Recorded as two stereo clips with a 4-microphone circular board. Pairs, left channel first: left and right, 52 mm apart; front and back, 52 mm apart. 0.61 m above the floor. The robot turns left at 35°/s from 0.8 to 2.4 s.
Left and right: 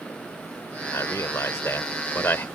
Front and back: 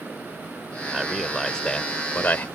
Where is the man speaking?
100° left; by 2.5 s 50° left.